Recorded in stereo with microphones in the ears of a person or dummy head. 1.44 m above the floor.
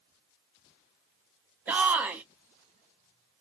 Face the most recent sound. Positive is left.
turn(degrees=-10)  # may be behind; listen again after turning